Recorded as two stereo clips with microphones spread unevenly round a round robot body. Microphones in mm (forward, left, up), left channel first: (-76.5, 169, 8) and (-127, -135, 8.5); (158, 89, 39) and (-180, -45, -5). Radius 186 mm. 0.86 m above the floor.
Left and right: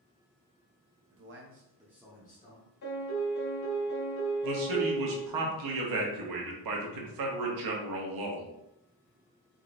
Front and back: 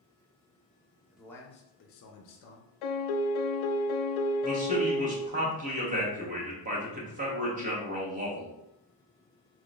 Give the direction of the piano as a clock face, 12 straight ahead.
11 o'clock.